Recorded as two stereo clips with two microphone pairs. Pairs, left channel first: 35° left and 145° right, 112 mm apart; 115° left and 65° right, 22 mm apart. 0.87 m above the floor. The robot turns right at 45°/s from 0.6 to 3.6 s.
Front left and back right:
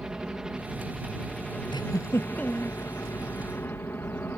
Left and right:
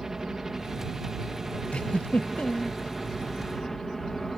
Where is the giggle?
80° left; by 2.8 s 130° left.